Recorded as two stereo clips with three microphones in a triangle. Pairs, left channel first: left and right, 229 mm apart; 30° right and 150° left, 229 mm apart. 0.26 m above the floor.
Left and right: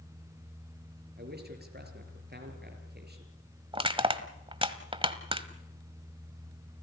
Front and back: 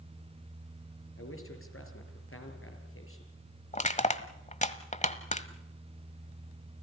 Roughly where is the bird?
I don't hear a bird.